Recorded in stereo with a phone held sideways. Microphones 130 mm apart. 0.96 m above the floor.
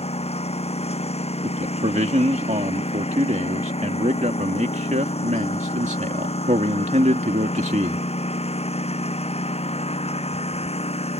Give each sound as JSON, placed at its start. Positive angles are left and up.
{"t": 0.0, "sound": "a lawn mower", "side_deg": 55}
{"t": 1.4, "sound": "a man speaking", "side_deg": -70}